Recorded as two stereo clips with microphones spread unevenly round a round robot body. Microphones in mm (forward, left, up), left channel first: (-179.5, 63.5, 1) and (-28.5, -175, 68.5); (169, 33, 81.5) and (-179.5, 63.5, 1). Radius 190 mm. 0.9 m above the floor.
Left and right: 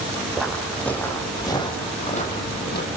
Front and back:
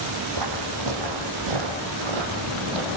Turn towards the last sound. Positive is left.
turn(degrees=180)